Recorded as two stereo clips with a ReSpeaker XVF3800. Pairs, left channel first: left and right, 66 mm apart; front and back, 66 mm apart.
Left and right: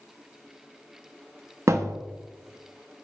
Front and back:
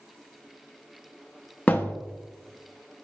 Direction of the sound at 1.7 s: 60° right.